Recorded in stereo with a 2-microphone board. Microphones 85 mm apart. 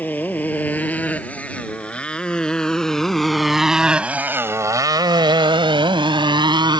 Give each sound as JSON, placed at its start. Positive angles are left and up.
{"t": 0.0, "sound": "a motorcycle", "side_deg": 20}